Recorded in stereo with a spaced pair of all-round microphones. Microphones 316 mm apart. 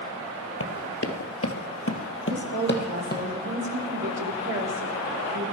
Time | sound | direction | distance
0.6 | running footsteps | 45° left (ahead or behind) | 1.9 m
2.3 | a woman speaking | 65° right (ahead or behind) | 4 m